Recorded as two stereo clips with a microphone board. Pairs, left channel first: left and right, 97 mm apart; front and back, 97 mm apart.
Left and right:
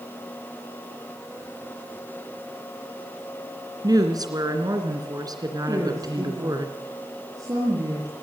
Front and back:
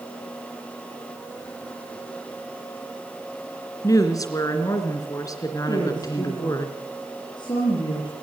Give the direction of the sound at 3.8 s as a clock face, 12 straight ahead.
2 o'clock.